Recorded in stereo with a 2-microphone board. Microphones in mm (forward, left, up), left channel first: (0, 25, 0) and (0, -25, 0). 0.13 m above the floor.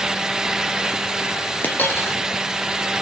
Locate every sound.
1.6 s a dropped coin: 40° left (ahead or behind), 2.5 m